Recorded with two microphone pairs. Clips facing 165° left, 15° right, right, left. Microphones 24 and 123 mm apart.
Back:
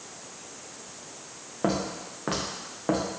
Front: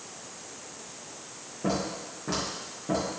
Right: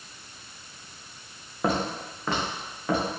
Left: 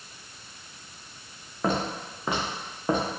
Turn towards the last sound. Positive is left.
turn(degrees=145)